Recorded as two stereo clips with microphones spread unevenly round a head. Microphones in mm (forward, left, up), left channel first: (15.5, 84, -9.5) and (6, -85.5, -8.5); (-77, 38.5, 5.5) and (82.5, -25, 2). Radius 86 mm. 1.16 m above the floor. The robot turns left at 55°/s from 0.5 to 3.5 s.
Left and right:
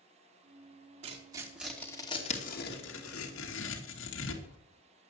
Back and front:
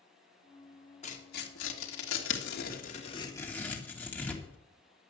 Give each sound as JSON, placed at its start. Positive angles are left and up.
{"t": 1.0, "sound": "tearing paper", "azimuth_deg": -145, "distance_m": 2.5}